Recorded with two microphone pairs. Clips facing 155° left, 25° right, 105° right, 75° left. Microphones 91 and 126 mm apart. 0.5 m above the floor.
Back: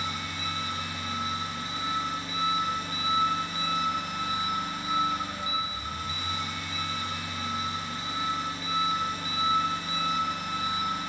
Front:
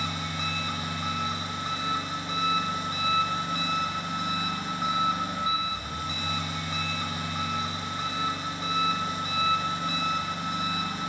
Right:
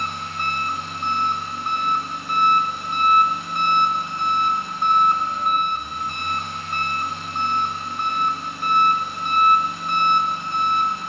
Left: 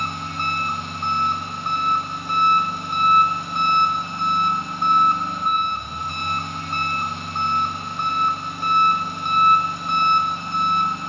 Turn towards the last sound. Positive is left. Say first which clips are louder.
# front 2 dB, even
turn(degrees=10)